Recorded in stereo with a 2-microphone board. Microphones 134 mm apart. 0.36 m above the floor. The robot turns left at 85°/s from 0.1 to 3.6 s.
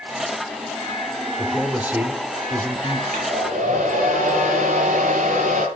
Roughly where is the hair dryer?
Ahead right.